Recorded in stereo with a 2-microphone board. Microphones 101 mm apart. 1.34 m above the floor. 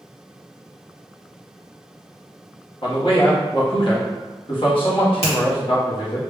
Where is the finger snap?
80° left, 1.7 m.